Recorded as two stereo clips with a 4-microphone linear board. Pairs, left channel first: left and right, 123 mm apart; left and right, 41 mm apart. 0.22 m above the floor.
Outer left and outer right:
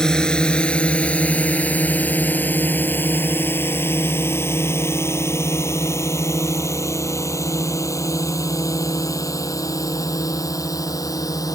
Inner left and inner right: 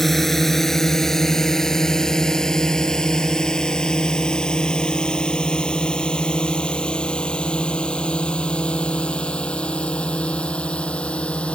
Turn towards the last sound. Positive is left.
turn(degrees=30)  # may be behind; listen again after turning